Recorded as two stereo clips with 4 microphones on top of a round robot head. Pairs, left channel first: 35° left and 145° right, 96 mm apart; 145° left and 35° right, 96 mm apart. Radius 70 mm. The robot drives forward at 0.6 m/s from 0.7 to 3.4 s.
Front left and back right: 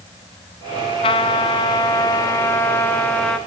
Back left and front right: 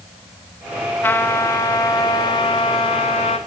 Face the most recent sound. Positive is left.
turn(degrees=115)